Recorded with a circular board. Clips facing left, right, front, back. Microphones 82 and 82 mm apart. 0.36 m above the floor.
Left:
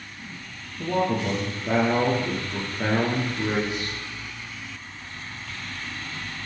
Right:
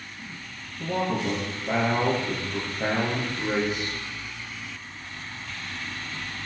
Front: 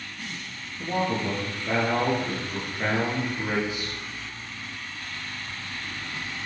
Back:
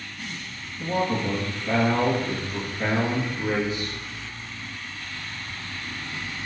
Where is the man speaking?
70° left, 7 m.